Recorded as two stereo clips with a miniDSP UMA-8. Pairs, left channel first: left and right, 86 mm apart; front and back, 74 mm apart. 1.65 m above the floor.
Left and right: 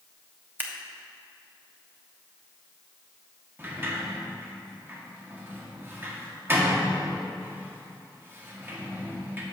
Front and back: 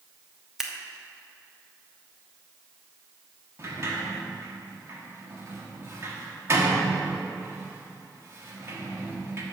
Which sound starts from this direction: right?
Scissors, at 0.6 s.